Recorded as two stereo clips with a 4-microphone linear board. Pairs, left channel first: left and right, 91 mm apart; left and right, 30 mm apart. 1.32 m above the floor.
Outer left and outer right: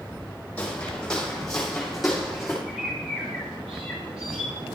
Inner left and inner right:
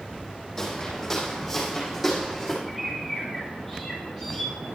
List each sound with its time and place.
0.6 s footsteps: 15° left (ahead or behind), 3.5 m; by 2.6 s 5° right (ahead or behind), 4 m
2.7 s a bird: 10° right (ahead or behind), 5 m